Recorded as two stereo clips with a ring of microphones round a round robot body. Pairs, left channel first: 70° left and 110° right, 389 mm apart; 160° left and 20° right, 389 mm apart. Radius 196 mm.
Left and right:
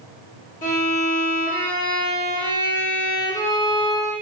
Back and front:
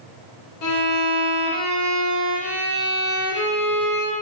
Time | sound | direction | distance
0.6 | a violin | 130° left | 0.9 m